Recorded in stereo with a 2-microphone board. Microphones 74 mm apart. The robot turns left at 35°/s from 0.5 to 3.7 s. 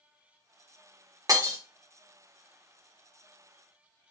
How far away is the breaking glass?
About 0.9 m.